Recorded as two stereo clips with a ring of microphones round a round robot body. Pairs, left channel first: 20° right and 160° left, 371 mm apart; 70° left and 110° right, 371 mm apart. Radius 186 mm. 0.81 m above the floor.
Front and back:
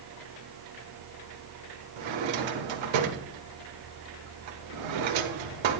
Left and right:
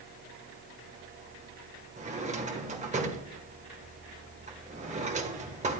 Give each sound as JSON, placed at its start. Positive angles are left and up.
{"t": 2.0, "sound": "a drawer", "azimuth_deg": 175, "distance_m": 1.3}